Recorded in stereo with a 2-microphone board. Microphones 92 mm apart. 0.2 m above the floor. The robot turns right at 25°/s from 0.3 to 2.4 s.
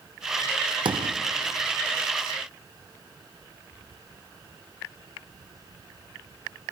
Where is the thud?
60° right (ahead or behind), 1.4 m; by 1.2 s 70° right (ahead or behind), 1.4 m.